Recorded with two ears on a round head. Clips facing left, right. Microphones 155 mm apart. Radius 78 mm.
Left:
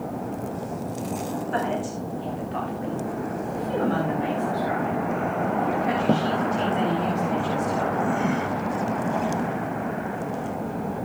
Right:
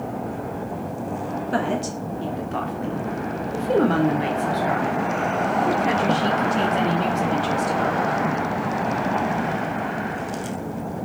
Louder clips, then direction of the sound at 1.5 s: Right 3 dB; 50° right (ahead or behind).